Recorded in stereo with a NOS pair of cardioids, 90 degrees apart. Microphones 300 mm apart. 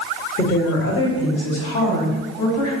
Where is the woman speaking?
30° left, 1.2 m; by 2.7 s 70° left, 2.5 m.